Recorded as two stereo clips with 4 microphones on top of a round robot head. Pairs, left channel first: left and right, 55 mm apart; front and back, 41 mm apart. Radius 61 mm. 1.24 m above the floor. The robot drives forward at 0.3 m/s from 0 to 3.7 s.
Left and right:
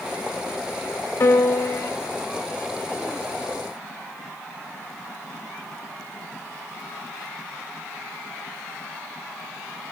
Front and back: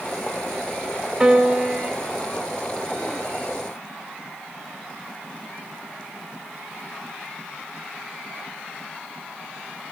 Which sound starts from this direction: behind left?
A piano, at 1.2 s.